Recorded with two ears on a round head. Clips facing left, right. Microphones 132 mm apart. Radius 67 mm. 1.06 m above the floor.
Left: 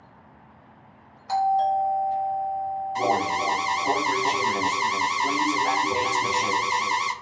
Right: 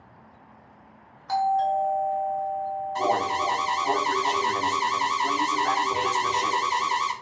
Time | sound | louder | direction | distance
1.3 | a doorbell | left 1 dB | 10° left (ahead or behind) | 1.7 m
3.0 | an alarm | left 1 dB | 15° left (ahead or behind) | 0.6 m